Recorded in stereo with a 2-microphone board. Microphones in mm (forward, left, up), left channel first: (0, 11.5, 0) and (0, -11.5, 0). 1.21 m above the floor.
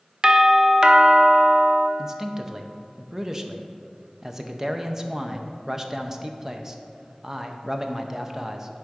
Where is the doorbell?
30° right (ahead or behind), 0.6 m.